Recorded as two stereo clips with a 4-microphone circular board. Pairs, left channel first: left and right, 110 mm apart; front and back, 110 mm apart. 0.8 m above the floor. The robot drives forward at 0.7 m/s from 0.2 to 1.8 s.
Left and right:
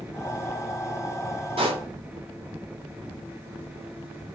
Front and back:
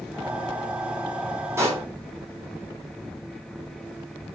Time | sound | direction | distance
1.6 | a pop | 115° right | 4 m